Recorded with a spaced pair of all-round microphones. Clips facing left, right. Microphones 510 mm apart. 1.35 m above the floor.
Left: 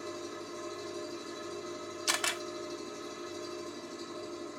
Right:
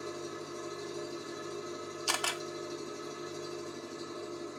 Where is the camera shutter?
45° left (ahead or behind), 0.6 m.